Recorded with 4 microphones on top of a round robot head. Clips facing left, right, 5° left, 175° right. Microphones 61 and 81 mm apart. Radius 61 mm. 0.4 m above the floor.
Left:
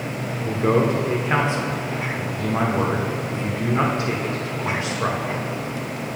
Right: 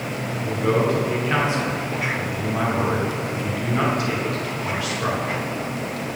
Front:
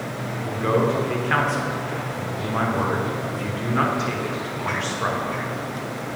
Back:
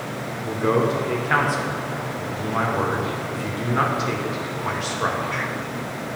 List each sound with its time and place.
0.4 s a man speaking: 110° left, 0.9 m